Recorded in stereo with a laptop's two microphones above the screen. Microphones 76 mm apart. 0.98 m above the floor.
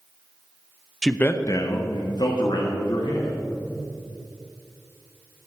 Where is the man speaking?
5° left (ahead or behind), 0.6 m; by 3.4 s 75° left (ahead or behind), 2.5 m.